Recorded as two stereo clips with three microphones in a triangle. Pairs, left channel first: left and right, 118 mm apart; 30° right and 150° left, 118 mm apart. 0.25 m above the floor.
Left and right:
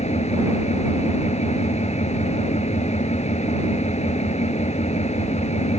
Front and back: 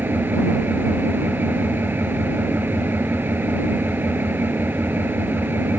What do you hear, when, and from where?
0.0 s an engine running: 80° left